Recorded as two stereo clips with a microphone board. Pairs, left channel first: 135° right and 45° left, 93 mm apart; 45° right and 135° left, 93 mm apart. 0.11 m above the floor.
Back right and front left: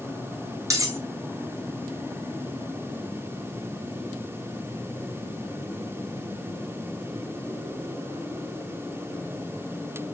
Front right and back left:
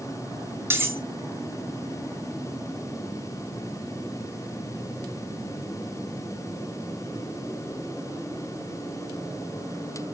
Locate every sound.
0.7 s cutlery clinking: 80° left, 1.0 m